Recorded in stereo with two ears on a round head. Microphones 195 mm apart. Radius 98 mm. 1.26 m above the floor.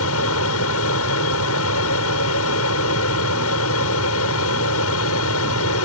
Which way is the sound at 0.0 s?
75° left (ahead or behind).